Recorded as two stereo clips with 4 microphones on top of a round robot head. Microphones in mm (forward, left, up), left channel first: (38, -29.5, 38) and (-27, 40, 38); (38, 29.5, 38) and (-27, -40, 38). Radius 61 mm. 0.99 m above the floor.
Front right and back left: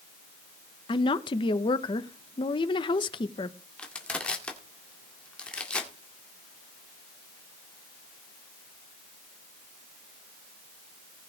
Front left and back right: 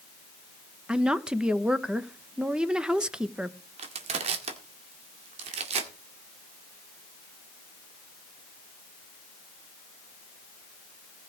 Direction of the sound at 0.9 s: 55° right.